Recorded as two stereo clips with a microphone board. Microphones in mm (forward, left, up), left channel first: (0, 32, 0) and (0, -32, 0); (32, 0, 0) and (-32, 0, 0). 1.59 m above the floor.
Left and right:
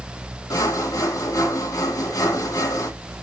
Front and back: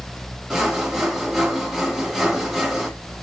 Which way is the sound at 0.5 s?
95° left.